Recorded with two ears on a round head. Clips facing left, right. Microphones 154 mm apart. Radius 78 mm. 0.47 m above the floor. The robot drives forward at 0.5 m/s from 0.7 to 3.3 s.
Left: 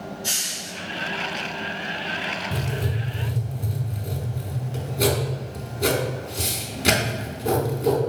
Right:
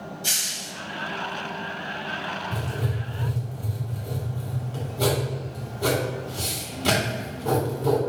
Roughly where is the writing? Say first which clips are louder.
Left 2 dB; left.